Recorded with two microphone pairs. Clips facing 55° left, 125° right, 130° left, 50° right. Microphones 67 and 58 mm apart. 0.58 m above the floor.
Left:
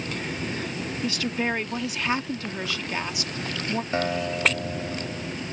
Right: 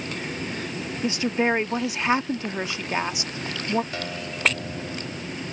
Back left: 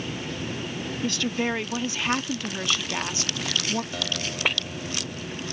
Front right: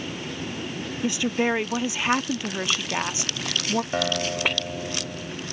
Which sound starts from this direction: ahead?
A guitar, at 3.9 s.